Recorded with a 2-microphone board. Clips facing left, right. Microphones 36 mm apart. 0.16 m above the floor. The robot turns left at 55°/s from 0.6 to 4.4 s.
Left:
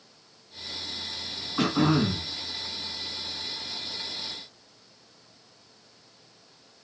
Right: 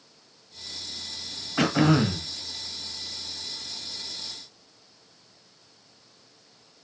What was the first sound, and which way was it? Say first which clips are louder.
Throat clearing: right 2 dB; 75° right.